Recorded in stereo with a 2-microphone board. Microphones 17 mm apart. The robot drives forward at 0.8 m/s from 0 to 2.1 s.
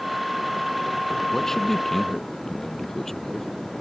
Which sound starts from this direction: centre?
A man speaking, at 1.3 s.